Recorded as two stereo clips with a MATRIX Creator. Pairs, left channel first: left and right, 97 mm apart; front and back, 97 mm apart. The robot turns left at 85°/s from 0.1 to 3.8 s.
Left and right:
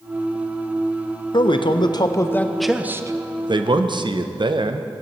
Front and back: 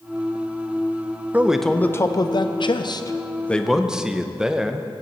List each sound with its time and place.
1.3 s a man speaking: 110° left, 0.5 m; by 4.9 s 100° right, 0.5 m